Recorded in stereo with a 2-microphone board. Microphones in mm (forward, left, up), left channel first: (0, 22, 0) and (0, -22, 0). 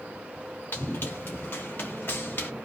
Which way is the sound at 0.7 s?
50° left (ahead or behind).